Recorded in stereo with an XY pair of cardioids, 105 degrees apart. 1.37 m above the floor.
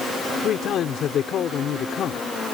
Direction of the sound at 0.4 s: 65° left.